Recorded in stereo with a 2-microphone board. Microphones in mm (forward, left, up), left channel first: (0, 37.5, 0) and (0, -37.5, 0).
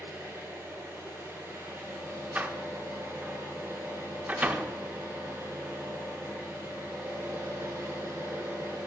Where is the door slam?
25° right (ahead or behind), 0.7 m.